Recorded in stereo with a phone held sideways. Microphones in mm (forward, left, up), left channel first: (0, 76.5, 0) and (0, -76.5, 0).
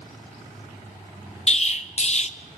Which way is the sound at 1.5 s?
45° left (ahead or behind).